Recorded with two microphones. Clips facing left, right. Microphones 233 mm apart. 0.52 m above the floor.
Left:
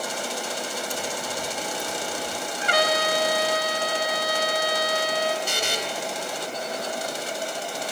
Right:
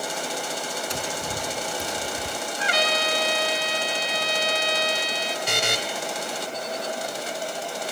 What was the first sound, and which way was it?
Tapping, 80° right.